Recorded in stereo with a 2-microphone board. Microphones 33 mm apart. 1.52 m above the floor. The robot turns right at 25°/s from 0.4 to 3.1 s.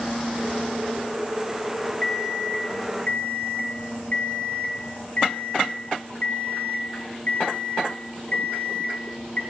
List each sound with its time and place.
2.0 s an alarm clock: 30° left (ahead or behind), 3 m; by 9.4 s 55° left (ahead or behind), 3 m